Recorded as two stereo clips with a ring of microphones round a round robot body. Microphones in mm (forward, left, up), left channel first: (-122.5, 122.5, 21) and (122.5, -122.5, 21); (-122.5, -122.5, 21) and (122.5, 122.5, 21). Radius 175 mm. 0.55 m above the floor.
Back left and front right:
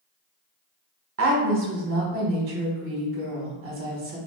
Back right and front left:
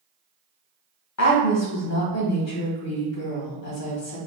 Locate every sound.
1.2 s a woman speaking: 95° right, 1.6 m